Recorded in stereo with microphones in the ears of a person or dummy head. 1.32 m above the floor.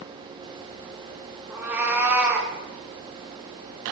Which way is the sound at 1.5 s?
10° right (ahead or behind).